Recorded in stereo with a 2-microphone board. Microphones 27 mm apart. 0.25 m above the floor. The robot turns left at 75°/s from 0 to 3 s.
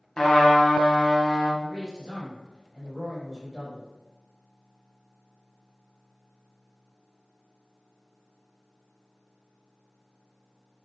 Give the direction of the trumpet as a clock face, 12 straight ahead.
7 o'clock.